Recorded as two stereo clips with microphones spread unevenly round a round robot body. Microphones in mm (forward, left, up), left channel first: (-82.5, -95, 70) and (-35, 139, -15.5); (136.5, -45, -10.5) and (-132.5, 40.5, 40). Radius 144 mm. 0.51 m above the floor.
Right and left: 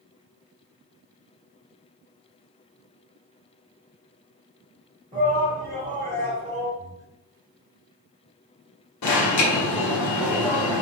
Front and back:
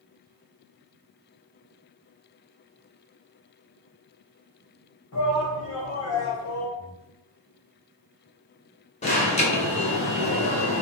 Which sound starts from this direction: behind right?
Breathing, at 6.8 s.